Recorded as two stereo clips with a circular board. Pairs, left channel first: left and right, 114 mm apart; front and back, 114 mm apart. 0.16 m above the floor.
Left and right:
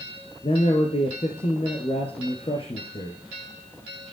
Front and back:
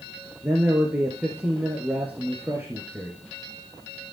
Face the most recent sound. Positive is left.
turn(degrees=105)